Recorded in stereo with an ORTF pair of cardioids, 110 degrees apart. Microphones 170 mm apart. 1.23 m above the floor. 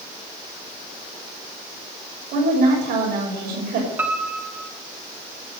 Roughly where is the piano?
Ahead.